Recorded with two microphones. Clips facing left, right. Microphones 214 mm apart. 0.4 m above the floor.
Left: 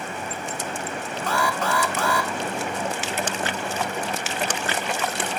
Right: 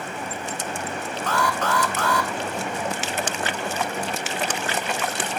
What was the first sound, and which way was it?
An alarm, 10° left (ahead or behind).